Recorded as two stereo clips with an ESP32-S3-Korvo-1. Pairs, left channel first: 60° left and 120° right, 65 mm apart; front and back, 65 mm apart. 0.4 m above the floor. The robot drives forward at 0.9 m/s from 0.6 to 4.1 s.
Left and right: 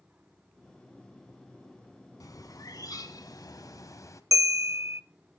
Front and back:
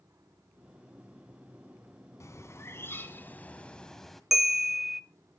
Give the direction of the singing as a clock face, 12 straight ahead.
No singing in this recording.